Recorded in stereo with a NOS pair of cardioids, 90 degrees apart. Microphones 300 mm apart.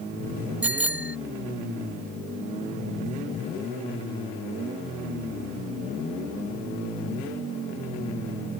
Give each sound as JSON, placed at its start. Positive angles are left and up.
{"t": 0.6, "sound": "a bicycle bell", "azimuth_deg": -5}